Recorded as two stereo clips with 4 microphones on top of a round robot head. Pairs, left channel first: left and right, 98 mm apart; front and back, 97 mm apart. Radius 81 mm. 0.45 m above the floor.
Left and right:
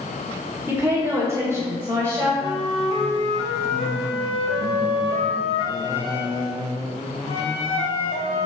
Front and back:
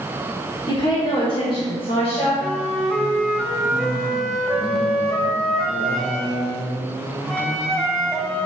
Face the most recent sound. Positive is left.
turn(degrees=90)